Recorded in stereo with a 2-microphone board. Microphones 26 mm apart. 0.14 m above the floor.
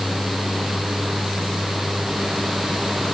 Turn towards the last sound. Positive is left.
No sound to turn to.